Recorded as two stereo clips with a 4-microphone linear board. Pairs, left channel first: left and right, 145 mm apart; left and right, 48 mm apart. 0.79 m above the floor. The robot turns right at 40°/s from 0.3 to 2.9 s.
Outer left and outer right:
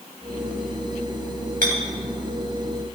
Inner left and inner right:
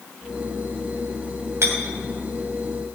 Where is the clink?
75° right (ahead or behind), 3 m; by 1.7 s 80° right, 3 m.